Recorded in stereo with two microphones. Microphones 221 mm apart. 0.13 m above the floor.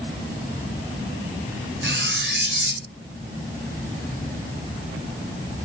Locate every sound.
1.8 s cutlery clinking: 55° right (ahead or behind), 1.3 m